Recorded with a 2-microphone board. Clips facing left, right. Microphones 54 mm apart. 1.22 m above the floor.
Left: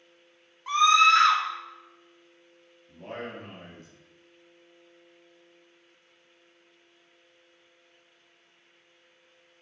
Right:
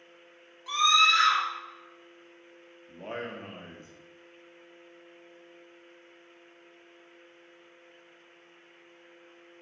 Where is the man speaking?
35° right (ahead or behind), 1.0 m.